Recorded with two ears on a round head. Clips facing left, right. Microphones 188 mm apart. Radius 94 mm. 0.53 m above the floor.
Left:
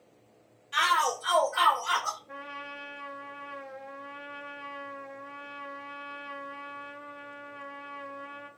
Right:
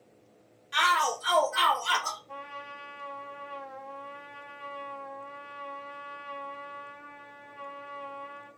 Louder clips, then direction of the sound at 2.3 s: Even; 25° left (ahead or behind).